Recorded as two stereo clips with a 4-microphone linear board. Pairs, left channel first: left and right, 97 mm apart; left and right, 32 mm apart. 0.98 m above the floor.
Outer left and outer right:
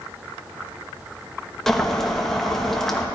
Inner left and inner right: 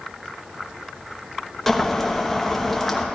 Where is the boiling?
5° left (ahead or behind), 1.1 m.